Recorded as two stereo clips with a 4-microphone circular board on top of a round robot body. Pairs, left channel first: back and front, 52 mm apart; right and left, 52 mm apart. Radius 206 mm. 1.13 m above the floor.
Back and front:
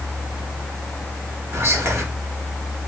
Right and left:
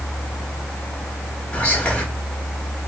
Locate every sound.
1.5 s whispering: 30° right, 1.3 m